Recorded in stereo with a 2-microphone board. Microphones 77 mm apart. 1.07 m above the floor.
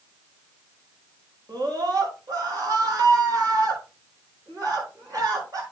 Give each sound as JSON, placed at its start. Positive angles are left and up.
{"t": 1.5, "sound": "a scream", "side_deg": -55, "distance_m": 5.5}